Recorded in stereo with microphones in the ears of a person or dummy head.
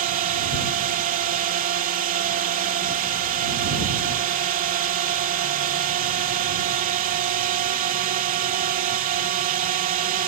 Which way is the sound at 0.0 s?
40° right (ahead or behind).